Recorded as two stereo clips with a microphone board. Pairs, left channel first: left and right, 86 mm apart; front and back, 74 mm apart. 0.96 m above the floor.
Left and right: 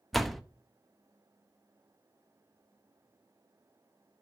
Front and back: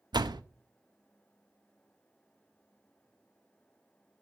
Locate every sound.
0.1 s a door slam: straight behind, 0.8 m